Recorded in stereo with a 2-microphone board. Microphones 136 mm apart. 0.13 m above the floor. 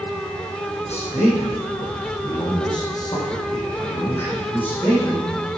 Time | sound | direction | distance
0.8 | a man speaking | 55° left (ahead or behind) | 4.5 m